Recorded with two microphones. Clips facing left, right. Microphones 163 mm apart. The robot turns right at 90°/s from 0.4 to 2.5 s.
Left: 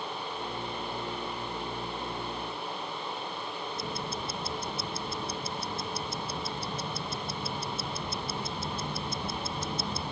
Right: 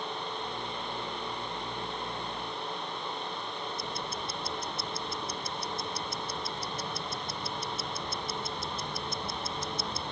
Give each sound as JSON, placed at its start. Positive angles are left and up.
{"t": 3.8, "sound": "ticking", "side_deg": 25}